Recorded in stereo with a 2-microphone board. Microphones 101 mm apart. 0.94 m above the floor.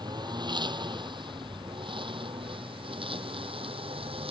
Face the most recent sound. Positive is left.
turn(degrees=-65)  # may be behind; listen again after turning